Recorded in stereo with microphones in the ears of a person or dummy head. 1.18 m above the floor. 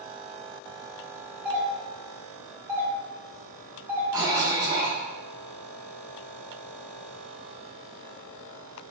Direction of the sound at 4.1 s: 10° right (ahead or behind).